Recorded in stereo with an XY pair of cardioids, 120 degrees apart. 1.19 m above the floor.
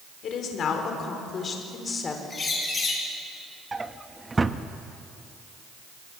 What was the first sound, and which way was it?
A woman speaking, 60° left.